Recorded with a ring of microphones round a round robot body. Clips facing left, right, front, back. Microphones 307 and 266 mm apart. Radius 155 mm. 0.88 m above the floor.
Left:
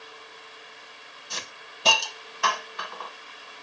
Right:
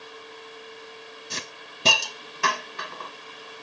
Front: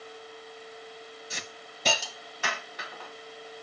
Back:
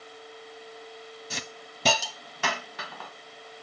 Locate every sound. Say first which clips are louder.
1.3 s a hiss: left 1 dB, back 3 dB; 150° right, 1.3 m